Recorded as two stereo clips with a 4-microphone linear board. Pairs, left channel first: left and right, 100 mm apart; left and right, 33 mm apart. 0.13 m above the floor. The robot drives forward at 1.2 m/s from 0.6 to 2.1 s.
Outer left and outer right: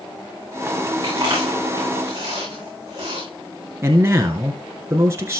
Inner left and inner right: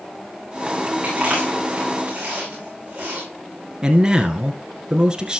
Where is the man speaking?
25° right (ahead or behind), 1.5 m.